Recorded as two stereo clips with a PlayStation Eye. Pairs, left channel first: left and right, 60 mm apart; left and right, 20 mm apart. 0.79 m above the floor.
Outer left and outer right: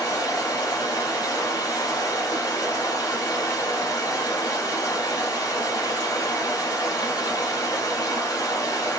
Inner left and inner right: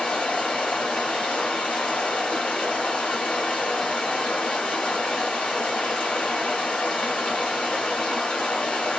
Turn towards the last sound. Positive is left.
turn(degrees=80)